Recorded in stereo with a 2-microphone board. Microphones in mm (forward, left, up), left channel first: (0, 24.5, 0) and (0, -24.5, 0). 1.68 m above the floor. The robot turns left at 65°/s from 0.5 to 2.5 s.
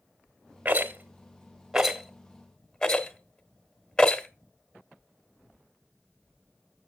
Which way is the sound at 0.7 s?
35° right (ahead or behind).